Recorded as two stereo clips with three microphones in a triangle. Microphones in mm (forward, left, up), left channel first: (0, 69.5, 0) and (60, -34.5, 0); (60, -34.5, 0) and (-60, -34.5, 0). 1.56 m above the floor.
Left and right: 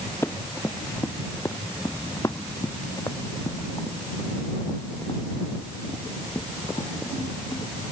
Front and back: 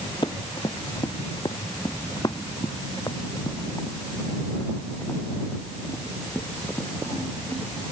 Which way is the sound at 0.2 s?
50° left.